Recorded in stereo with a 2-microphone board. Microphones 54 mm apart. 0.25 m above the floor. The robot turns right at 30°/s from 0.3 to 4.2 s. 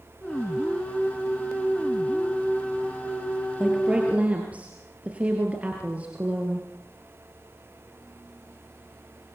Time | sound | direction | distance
3.6 | a woman speaking | 10° right (ahead or behind) | 4 m